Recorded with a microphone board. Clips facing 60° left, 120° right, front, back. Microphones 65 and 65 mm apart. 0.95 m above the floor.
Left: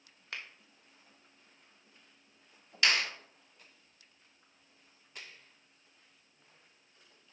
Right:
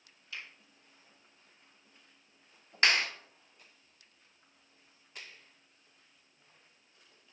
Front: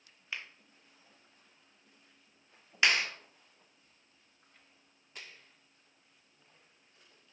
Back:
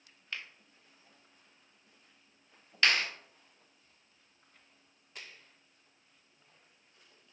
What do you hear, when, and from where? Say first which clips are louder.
0.3 s a finger snap: left 2 dB, even; 75° left, 1.2 m
2.8 s a clap: right 2 dB, even; 75° right, 2.5 m